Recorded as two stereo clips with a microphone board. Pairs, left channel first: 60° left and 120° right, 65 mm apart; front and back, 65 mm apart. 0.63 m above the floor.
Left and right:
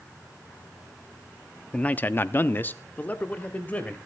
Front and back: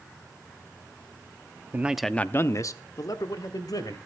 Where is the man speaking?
125° left, 0.7 m; by 4.0 s 10° right, 2.5 m.